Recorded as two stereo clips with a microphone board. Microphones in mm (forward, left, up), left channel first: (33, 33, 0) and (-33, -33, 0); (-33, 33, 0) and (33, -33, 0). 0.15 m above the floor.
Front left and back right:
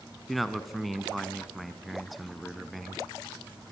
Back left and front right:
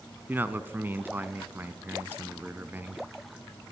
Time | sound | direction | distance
0.3 | a man speaking | 45° right | 1.0 m